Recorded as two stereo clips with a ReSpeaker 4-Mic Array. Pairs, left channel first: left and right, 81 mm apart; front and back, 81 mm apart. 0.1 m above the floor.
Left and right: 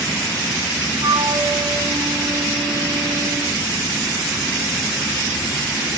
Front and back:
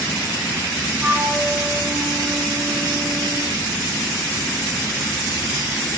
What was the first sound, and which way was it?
A flute, 105° right.